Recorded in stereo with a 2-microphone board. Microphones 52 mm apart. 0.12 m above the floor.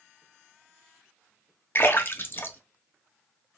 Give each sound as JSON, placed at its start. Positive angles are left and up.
{"t": 1.8, "sound": "a splash", "side_deg": 40, "distance_m": 0.6}